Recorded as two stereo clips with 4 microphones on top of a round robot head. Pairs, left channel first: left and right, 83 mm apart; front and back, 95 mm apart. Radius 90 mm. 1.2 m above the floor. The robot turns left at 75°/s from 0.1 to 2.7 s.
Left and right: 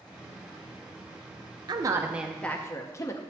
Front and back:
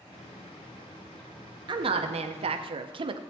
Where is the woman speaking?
135° right, 0.6 m; by 3.2 s 150° left, 0.6 m.